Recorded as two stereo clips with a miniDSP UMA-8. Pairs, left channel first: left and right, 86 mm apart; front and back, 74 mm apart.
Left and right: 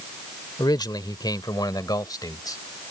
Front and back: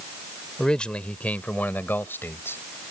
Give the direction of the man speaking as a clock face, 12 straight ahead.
9 o'clock.